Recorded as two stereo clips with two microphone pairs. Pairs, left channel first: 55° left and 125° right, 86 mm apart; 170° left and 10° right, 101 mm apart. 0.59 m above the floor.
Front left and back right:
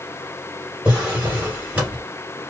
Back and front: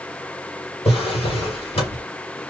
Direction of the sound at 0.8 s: 160° left.